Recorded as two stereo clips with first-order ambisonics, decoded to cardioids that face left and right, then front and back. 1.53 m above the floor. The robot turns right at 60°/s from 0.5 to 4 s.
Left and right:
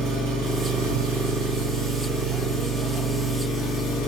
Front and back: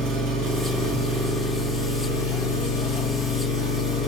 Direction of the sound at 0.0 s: 135° right.